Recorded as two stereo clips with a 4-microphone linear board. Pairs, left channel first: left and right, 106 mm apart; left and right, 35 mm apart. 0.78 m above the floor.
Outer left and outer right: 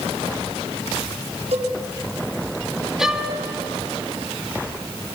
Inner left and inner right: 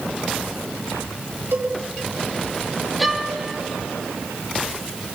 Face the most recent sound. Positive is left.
turn(degrees=-5)  # may be behind; listen again after turning